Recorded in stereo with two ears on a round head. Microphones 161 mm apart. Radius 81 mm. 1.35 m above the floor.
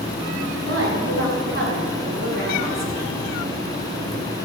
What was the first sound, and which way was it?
A woman speaking, 80° right.